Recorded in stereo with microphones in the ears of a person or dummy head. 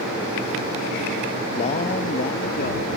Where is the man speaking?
40° left (ahead or behind); by 2.9 s 55° left (ahead or behind).